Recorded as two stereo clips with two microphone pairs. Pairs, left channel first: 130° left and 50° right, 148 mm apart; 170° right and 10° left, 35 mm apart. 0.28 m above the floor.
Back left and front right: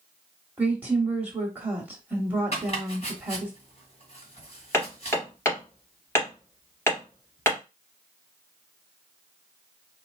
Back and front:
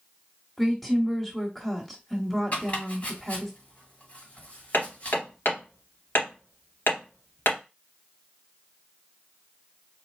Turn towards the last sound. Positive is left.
turn(degrees=-160)